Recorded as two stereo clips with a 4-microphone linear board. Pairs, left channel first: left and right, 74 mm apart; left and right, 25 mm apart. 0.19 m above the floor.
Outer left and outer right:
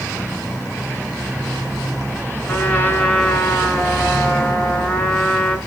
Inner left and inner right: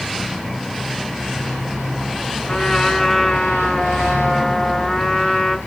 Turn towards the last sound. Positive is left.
turn(degrees=20)  # may be behind; listen again after turning